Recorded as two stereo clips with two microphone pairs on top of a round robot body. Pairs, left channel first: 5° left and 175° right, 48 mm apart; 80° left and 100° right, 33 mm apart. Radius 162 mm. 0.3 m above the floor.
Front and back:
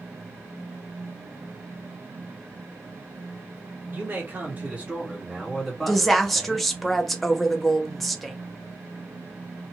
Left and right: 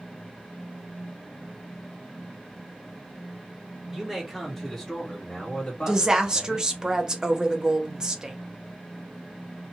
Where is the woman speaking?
80° right, 1.0 m.